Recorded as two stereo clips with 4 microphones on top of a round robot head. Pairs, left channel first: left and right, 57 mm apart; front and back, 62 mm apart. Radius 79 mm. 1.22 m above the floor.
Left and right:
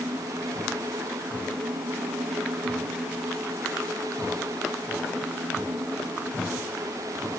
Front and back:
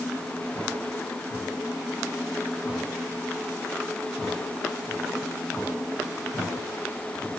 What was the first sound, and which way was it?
Only background noise.